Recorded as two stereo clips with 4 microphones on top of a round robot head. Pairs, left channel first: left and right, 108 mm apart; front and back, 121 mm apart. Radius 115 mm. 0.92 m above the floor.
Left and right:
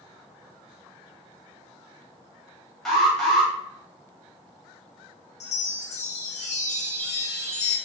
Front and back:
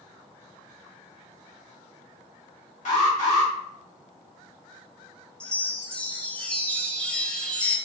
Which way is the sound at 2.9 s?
5° left.